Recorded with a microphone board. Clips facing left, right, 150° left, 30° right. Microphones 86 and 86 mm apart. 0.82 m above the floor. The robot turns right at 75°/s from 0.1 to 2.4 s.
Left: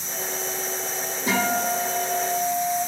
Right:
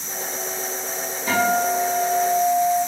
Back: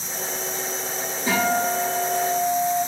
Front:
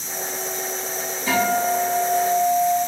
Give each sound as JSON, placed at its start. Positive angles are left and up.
{"t": 1.3, "sound": "a guitar", "azimuth_deg": 90, "distance_m": 2.0}